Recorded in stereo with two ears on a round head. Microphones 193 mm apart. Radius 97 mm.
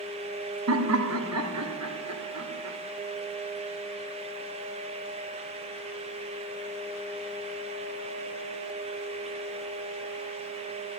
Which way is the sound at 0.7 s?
80° right.